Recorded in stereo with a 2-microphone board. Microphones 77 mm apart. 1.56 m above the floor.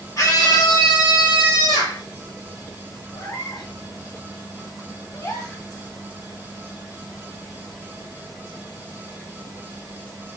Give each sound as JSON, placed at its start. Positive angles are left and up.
{"t": 0.2, "sound": "a scream", "side_deg": 45, "distance_m": 1.3}
{"t": 3.1, "sound": "a cat meowing", "side_deg": 65, "distance_m": 2.0}
{"t": 5.1, "sound": "a gasp", "side_deg": 40, "distance_m": 1.0}